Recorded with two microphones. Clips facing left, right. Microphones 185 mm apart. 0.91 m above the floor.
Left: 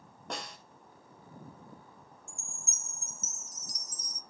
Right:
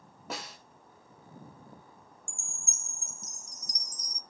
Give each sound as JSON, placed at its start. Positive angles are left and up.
{"t": 0.3, "sound": "a snare drum", "side_deg": -5, "distance_m": 2.5}
{"t": 2.3, "sound": "a chime", "side_deg": 5, "distance_m": 0.6}